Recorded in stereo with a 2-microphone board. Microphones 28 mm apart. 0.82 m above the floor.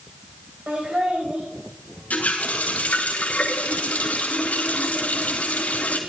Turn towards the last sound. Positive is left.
turn(degrees=60)  # may be behind; listen again after turning